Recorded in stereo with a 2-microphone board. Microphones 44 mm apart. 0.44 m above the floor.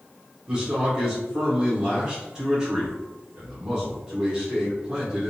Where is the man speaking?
15° right (ahead or behind), 0.8 m.